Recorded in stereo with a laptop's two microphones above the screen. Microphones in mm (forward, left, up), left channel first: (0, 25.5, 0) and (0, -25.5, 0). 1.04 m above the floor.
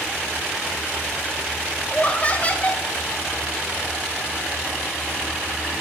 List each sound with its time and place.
1.9 s laughter: 25° left (ahead or behind), 1.3 m